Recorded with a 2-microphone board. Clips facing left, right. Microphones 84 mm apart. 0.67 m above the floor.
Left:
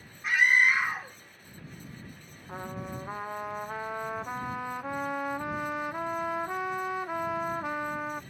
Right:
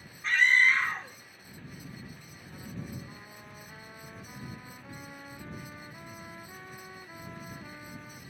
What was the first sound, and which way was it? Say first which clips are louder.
A scream: left 1 dB; 10° left (ahead or behind).